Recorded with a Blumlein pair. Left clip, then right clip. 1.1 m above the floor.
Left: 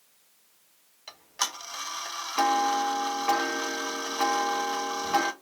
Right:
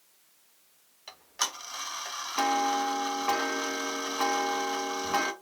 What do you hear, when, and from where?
1.1 s ticking: 5° left, 0.6 m